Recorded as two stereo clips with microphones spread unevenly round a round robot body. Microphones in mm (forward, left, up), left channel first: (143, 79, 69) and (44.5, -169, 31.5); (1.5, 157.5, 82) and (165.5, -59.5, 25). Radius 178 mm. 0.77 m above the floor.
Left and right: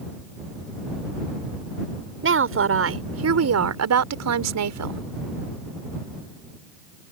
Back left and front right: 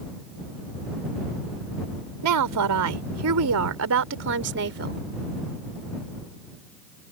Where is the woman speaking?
70° right; by 5.0 s 110° right.